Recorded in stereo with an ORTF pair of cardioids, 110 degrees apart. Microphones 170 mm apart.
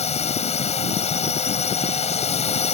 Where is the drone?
40° left.